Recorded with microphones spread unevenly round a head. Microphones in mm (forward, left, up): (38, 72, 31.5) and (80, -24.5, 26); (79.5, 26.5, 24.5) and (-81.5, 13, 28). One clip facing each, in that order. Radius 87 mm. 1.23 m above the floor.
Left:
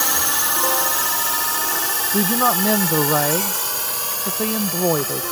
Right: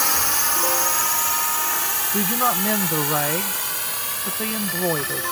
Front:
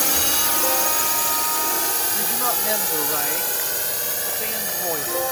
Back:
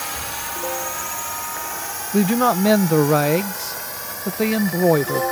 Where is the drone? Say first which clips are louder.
Left 1 dB, front 5 dB; 35° left; by 5.3 s 60° left.